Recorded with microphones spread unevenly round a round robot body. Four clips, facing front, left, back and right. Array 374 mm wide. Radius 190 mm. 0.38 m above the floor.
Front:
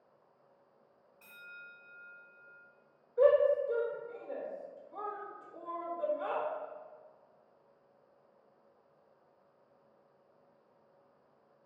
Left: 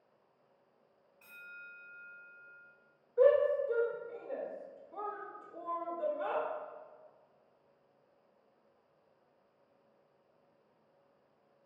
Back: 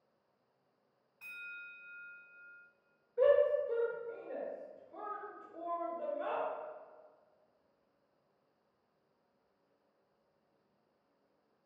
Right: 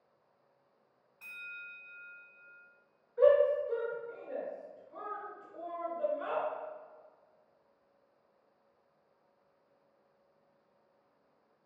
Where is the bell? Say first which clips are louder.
Right 2 dB, back 2 dB; 140° right, 1.5 m.